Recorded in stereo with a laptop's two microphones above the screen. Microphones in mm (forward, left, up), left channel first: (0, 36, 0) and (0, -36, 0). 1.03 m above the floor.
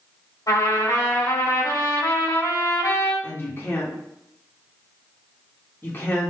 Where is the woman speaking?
35° left (ahead or behind), 1.3 m.